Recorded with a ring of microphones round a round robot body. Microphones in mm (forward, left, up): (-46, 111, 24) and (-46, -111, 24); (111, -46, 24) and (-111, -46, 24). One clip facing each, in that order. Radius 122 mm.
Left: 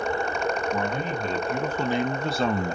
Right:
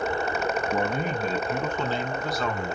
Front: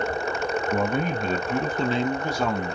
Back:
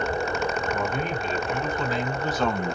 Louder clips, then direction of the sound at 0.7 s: Right 1 dB, front 3 dB; 20° right.